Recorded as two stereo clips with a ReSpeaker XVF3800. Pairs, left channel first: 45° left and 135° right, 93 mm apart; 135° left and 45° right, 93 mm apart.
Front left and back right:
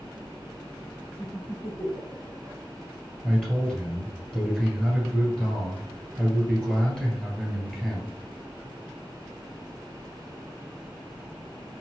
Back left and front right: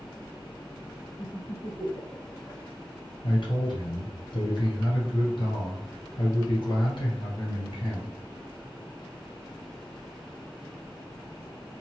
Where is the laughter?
95° left, 1.6 m.